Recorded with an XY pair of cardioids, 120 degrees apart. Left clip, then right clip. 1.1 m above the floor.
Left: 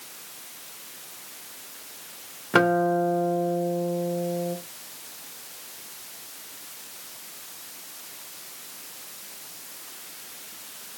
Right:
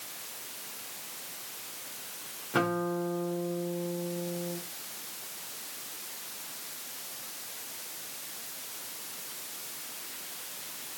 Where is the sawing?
No sawing in this recording.